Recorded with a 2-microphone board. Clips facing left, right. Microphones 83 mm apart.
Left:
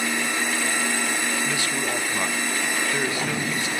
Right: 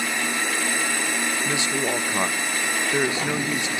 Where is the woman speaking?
20° right (ahead or behind), 1.0 m.